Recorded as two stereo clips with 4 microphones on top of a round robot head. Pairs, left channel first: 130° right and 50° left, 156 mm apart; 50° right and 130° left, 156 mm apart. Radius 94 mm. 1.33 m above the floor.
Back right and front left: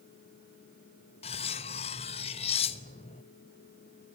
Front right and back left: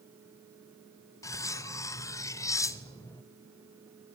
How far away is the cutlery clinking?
About 0.5 m.